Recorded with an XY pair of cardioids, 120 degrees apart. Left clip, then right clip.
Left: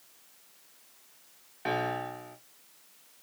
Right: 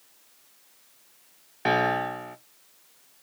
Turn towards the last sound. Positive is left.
turn(degrees=-45)